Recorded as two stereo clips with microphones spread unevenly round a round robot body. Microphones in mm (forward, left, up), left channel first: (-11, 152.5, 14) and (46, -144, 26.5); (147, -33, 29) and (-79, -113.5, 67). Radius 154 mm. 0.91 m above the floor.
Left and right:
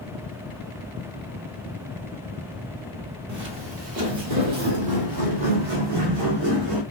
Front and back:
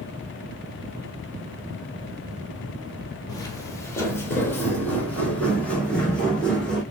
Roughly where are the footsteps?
Ahead right.